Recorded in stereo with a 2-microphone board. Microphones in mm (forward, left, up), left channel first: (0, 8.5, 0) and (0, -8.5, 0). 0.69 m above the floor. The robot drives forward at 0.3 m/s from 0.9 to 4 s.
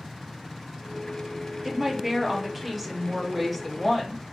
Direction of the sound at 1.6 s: 20° right (ahead or behind).